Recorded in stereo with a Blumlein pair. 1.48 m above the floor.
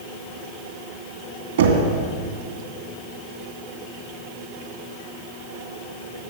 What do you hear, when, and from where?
1.6 s knocking: 60° right, 2.5 m